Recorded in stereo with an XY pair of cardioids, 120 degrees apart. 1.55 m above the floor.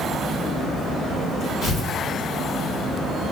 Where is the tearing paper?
55° left, 1.4 m.